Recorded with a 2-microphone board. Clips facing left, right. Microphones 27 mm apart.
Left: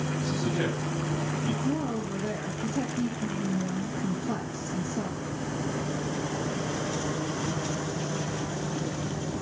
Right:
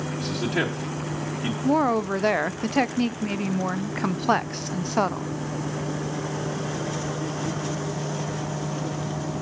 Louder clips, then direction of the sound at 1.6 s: Right 8 dB; 80° right.